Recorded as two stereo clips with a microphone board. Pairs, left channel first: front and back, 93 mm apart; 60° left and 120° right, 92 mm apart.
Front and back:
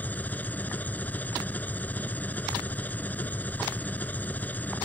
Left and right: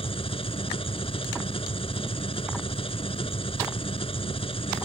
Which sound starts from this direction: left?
An engine running, at 0.0 s.